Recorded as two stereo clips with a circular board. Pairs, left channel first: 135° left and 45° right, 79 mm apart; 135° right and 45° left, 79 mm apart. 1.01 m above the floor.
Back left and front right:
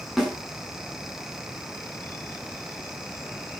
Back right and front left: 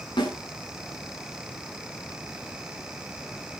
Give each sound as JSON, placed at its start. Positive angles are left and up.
{"t": 0.2, "sound": "a snare drum", "azimuth_deg": -135, "distance_m": 6.5}